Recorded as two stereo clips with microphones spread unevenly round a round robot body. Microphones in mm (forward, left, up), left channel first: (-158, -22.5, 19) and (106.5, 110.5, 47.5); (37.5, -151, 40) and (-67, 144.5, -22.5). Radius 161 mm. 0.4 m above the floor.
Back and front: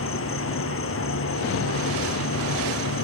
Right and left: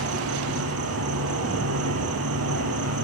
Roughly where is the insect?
Behind.